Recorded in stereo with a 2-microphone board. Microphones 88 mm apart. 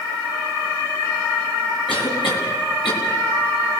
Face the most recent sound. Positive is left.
turn(degrees=75)  # may be behind; listen again after turning